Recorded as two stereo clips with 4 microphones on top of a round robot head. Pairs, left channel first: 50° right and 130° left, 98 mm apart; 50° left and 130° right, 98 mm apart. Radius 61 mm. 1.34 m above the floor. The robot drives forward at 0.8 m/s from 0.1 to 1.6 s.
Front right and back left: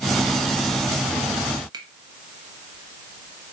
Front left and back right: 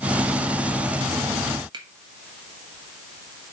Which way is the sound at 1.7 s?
Straight behind.